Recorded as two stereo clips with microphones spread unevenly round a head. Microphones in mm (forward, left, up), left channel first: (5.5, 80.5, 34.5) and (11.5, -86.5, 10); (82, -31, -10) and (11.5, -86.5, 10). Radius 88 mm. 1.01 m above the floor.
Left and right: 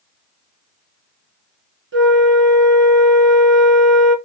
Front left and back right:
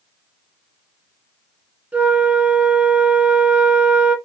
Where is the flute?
75° right, 1.8 m.